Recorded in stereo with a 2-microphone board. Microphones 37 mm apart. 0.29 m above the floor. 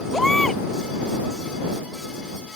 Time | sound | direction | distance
0.1 | a baby crying | 10° left (ahead or behind) | ?